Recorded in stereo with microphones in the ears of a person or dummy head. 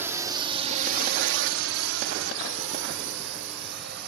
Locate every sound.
0.0 s a drone: 10° right (ahead or behind); by 4.1 s 65° right (ahead or behind)